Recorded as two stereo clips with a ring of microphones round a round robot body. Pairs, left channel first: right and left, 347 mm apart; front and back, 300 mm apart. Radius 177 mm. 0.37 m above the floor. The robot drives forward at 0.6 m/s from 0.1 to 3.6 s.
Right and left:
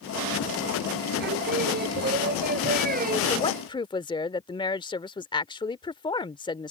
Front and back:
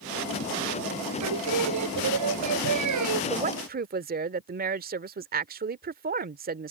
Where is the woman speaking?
145° right; by 6.7 s 155° right.